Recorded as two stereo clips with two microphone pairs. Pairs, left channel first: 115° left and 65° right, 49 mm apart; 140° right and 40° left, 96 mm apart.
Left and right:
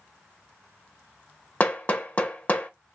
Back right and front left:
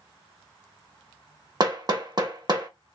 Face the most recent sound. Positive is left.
turn(degrees=65)